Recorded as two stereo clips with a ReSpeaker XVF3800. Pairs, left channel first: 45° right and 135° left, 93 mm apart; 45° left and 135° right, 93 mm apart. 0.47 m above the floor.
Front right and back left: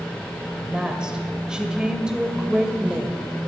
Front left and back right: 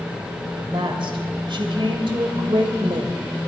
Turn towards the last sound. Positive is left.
turn(degrees=-145)